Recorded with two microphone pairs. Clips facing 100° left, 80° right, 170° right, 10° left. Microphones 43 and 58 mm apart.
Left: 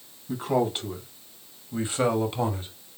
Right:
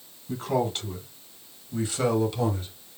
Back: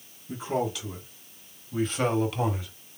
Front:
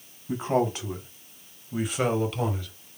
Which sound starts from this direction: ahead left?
A man speaking, at 0.3 s.